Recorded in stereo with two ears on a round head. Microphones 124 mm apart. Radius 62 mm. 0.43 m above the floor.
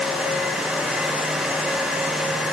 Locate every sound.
Only background noise.